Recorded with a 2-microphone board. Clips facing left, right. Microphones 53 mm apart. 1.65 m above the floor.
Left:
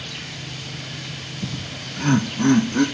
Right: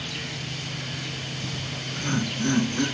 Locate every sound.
1.4 s laughter: 75° left (ahead or behind), 0.7 m; by 2.8 s 65° left (ahead or behind), 1.6 m